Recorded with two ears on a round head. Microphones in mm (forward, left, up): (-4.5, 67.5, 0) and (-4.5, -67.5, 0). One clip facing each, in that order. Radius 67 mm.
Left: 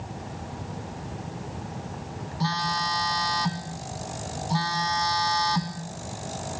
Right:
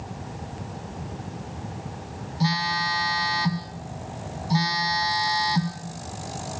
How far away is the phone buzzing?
About 2.5 m.